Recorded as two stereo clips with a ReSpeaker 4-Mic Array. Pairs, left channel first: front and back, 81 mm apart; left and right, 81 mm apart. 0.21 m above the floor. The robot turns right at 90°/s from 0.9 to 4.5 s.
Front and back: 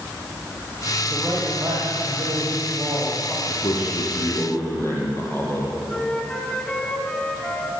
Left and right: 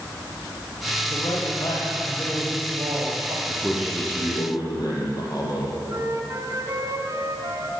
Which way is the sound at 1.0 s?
80° left.